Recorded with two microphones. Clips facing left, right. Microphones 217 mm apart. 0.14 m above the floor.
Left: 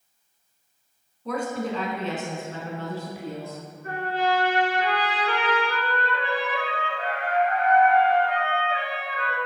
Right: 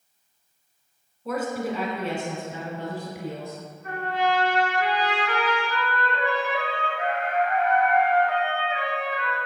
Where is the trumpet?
35° left (ahead or behind), 2 m.